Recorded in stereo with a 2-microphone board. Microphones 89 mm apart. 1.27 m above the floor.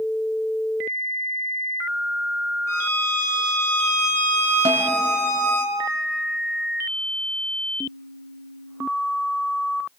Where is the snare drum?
70° right (ahead or behind), 2.5 m.